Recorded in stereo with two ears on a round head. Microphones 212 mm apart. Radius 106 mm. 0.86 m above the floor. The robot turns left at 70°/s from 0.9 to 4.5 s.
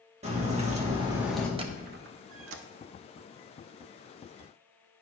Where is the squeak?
25° right (ahead or behind), 0.6 m; by 2.6 s 60° right (ahead or behind), 0.6 m.